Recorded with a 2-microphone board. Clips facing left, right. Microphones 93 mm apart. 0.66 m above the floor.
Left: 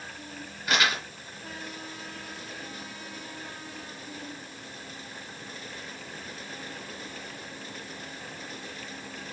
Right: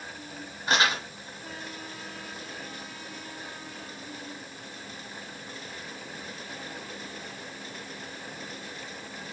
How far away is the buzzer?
No buzzer in this recording.